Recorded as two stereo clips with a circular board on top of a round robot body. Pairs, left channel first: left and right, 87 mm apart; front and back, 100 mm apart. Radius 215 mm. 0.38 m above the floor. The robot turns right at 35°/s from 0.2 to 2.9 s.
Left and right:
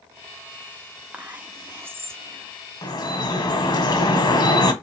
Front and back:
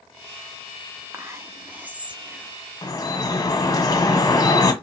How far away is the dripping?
About 0.8 m.